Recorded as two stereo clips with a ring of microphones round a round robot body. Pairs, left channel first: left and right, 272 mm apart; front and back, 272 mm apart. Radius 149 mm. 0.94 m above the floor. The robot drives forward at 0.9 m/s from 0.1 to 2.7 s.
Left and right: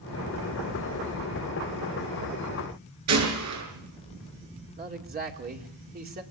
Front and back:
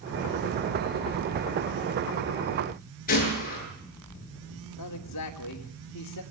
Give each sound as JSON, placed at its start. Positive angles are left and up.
{"t": 3.1, "sound": "a gunshot", "azimuth_deg": -65, "distance_m": 7.5}
{"t": 4.8, "sound": "a man speaking", "azimuth_deg": -35, "distance_m": 2.5}